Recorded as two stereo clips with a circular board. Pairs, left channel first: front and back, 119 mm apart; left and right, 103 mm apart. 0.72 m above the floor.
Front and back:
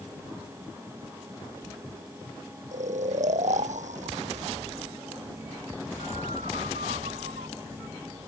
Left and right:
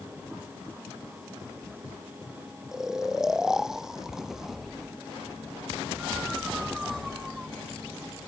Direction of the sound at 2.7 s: 175° right.